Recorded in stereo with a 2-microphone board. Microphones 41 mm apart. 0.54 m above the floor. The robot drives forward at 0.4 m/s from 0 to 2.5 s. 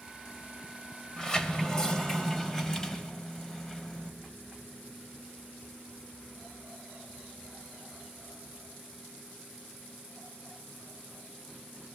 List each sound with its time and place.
1.2 s a sliding door: 15° left (ahead or behind), 2 m